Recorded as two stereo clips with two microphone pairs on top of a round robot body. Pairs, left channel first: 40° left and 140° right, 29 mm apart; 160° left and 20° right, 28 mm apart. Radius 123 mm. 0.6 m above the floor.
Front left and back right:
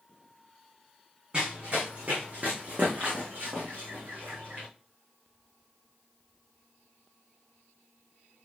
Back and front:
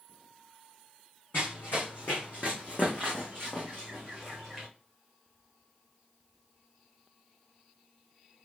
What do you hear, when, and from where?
1.3 s running footsteps: 165° left, 2 m; by 4.7 s 130° right, 2 m